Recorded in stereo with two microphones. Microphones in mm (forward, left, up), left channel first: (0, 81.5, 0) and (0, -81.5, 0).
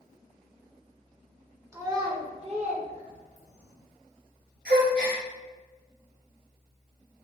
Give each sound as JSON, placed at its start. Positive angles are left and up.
{"t": 1.7, "sound": "a child speaking", "side_deg": -20, "distance_m": 0.6}
{"t": 4.7, "sound": "a gasp", "side_deg": -75, "distance_m": 1.2}